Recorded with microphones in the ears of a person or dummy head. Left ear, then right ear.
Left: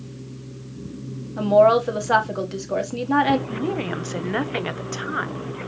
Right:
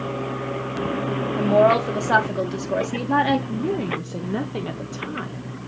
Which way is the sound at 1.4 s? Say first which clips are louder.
Left 2 dB; 10° left (ahead or behind).